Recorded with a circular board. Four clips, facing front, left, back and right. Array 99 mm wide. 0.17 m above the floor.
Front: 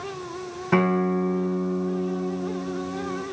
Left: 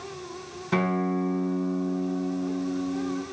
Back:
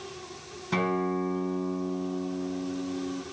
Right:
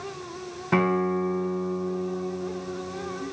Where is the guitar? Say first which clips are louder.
Right 2 dB, front 6 dB; 30° right, 1.6 m.